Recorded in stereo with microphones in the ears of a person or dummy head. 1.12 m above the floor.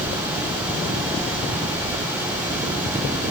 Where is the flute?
No flute in this recording.